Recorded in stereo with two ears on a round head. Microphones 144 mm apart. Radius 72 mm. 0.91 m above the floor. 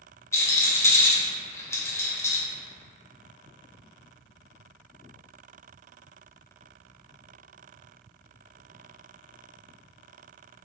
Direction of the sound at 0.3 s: 15° left (ahead or behind).